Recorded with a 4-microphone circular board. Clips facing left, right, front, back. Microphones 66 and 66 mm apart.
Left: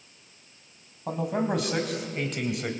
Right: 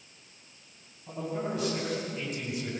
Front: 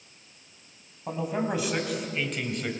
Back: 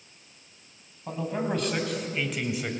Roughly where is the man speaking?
Left.